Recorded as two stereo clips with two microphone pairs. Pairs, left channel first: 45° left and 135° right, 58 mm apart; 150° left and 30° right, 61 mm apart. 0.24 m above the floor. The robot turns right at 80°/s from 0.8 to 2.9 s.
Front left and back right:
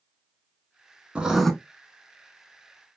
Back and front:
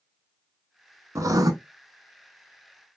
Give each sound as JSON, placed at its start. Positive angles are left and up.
{"t": 1.1, "sound": "writing", "azimuth_deg": -65, "distance_m": 0.6}